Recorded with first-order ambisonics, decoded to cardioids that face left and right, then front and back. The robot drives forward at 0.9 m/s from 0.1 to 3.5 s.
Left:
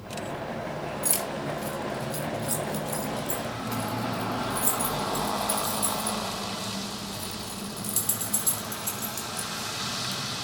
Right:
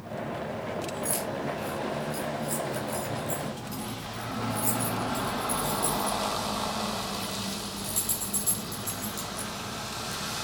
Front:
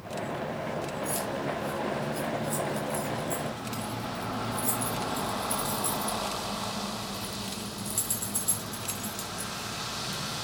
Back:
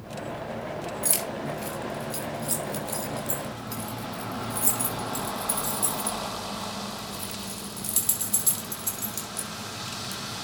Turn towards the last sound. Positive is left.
turn(degrees=165)